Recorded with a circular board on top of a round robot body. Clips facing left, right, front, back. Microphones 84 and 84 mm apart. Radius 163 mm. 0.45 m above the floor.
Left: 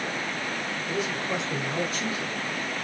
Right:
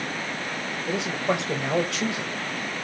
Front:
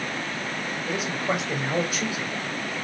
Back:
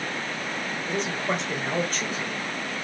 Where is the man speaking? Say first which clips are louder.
Right 5 dB, front 1 dB; 85° right, 2.5 m.